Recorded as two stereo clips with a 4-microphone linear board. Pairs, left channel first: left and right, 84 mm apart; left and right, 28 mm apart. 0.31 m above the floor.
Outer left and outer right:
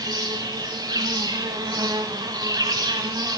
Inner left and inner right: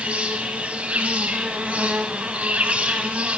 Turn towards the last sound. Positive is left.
turn(degrees=-55)  # may be behind; listen again after turning